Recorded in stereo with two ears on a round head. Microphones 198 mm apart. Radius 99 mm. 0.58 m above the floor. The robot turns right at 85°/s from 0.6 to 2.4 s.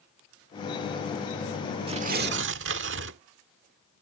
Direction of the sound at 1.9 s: 150° right.